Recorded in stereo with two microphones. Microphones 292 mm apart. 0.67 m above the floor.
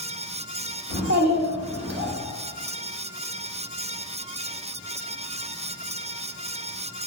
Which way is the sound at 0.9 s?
60° right (ahead or behind).